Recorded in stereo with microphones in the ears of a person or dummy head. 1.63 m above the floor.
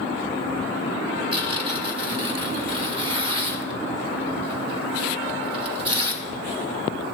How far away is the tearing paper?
About 1.7 m.